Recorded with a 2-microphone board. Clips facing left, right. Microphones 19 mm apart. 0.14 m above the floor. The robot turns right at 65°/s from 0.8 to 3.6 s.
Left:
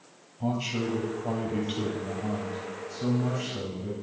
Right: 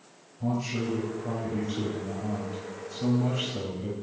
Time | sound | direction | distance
0.4 | a man speaking | 85° left | 3 m